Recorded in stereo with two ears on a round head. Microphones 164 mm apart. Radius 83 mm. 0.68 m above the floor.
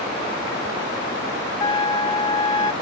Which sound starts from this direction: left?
A trumpet, at 1.6 s.